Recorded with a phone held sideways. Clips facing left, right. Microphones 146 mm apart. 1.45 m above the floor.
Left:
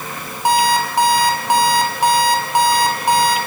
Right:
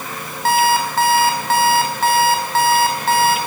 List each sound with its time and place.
0.5 s an alarm clock: 15° left (ahead or behind), 5 m